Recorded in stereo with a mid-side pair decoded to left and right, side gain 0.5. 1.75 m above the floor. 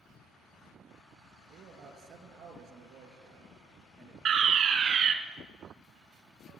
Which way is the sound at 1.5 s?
65° right.